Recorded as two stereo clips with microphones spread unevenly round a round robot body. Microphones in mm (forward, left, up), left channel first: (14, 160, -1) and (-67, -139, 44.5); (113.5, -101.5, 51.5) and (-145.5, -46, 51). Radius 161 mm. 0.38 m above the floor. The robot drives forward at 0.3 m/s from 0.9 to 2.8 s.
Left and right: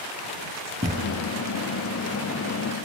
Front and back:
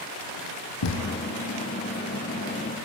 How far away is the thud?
About 4.5 m.